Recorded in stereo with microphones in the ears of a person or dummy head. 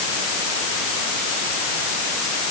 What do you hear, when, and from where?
Only background noise.